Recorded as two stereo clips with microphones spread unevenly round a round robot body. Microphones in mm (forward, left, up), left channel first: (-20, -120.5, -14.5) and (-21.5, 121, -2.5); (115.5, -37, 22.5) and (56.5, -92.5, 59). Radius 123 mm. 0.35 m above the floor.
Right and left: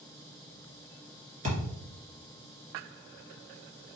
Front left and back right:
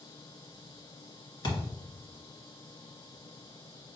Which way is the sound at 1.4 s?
25° left.